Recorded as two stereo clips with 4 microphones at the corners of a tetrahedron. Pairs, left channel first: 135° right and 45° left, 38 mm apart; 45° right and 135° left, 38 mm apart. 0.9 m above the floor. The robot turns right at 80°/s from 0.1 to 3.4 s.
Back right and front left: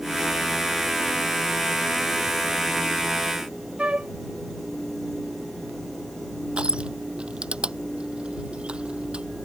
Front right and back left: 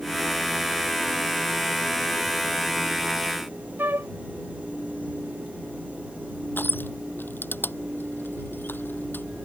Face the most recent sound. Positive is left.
turn(degrees=-15)